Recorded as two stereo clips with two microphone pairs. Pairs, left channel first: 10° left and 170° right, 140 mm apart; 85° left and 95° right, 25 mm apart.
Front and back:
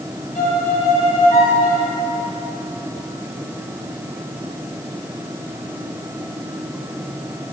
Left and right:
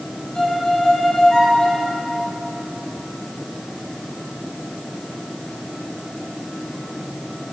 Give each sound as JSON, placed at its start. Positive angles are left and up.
{"t": 0.3, "sound": "a violin", "azimuth_deg": 30, "distance_m": 3.5}